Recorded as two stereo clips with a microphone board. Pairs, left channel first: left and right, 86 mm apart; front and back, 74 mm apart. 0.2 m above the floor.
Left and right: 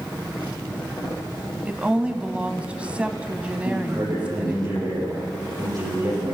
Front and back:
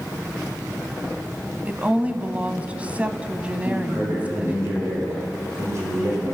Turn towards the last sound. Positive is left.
turn(degrees=-130)